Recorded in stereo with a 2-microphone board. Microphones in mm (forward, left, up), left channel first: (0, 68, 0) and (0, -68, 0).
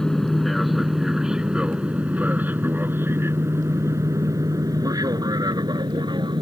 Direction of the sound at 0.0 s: 5° left (ahead or behind).